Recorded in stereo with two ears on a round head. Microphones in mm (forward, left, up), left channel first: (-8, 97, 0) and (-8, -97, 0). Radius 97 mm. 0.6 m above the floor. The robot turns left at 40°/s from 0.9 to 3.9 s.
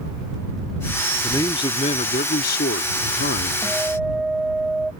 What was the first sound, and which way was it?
A man speaking, 165° left.